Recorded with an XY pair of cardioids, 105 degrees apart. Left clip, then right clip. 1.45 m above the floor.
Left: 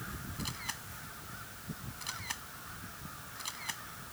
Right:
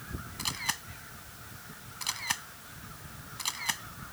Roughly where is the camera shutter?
Ahead right.